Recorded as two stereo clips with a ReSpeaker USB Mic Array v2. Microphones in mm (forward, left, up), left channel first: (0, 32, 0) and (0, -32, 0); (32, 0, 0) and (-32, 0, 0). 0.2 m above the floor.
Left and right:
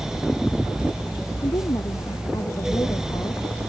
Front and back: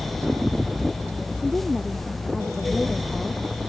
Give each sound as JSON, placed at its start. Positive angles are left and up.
{"t": 1.4, "sound": "a woman speaking", "azimuth_deg": 85}